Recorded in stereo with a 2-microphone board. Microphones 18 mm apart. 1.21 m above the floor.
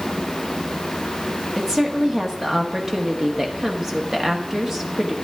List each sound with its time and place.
1.6 s a woman speaking: 25° right (ahead or behind), 1.5 m